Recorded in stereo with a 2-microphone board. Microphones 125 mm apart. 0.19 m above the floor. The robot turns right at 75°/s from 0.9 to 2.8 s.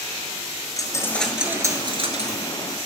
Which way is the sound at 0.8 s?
150° left.